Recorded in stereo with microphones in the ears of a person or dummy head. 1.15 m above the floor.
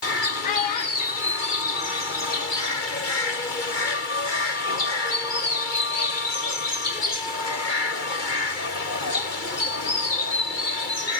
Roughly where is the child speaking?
Left.